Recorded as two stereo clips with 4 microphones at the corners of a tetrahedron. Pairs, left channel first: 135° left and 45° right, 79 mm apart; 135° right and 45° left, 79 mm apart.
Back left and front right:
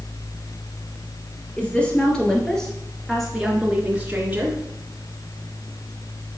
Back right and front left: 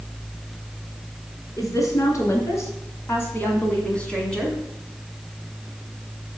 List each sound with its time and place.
1.6 s a woman speaking: 155° right, 2.5 m; by 4.6 s 55° right, 1.6 m